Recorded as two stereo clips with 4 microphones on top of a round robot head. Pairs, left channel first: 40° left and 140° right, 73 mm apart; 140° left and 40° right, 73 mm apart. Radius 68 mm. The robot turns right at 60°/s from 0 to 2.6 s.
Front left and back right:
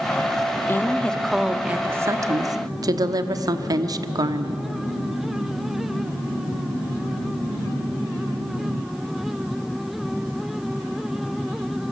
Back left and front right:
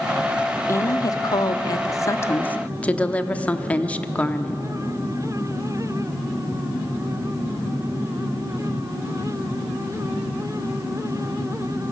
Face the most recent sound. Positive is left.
turn(degrees=-150)